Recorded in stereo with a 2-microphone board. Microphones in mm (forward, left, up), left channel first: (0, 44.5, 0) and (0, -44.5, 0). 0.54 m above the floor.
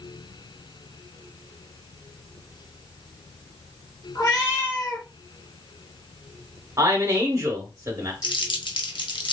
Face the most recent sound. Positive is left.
turn(degrees=65)  # may be behind; listen again after turning